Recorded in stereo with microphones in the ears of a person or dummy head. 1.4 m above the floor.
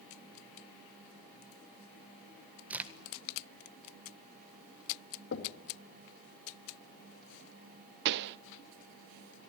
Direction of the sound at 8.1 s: 60° right (ahead or behind).